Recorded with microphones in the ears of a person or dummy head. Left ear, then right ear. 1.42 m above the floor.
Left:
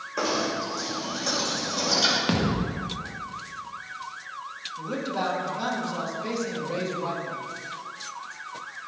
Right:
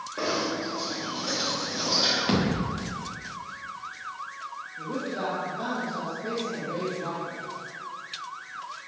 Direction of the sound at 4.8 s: 60° left (ahead or behind).